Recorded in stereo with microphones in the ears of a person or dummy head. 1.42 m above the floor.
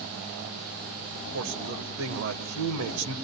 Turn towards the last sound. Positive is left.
turn(degrees=-75)  # may be behind; listen again after turning